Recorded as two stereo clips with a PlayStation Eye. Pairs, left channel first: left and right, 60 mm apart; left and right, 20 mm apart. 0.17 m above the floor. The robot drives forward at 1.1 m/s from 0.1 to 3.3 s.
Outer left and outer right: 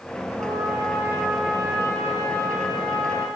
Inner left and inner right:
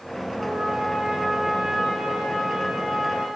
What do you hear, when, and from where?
0.4 s a trumpet: 70° right (ahead or behind), 9 m; by 3.3 s 80° right, 8.5 m